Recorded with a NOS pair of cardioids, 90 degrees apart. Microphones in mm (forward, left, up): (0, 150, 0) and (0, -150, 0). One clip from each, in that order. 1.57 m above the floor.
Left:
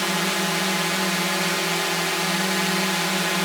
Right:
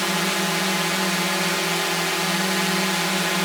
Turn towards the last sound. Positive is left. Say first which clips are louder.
# right 1 dB
turn(degrees=-5)